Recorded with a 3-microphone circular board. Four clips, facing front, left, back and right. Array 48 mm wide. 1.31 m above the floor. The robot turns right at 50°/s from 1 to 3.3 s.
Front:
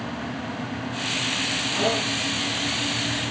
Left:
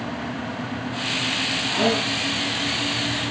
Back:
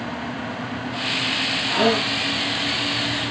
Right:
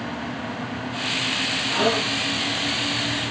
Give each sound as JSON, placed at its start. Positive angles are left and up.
{"t": 1.7, "sound": "a gasp", "azimuth_deg": 180, "distance_m": 7.5}